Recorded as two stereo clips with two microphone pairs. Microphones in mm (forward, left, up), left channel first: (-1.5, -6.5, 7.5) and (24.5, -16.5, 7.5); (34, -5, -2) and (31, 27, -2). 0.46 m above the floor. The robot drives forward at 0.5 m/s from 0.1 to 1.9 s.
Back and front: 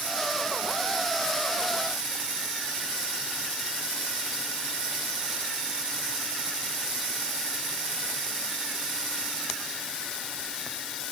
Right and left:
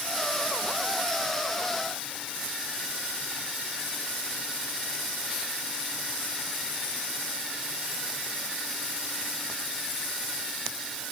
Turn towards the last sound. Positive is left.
No sound to turn to.